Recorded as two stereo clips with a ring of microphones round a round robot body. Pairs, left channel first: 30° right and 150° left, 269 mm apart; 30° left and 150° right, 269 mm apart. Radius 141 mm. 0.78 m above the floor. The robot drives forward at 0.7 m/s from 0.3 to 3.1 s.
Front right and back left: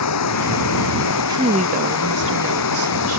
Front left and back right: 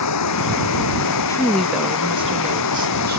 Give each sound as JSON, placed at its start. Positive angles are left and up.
{"t": 0.0, "sound": "running water", "azimuth_deg": 0}
{"t": 1.3, "sound": "a woman speaking", "azimuth_deg": 90}